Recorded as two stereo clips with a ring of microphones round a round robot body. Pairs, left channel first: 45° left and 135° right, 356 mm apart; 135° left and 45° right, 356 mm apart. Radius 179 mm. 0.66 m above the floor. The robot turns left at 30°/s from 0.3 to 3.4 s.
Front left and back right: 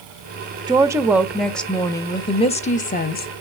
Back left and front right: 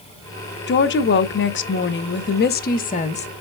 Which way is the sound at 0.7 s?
160° left.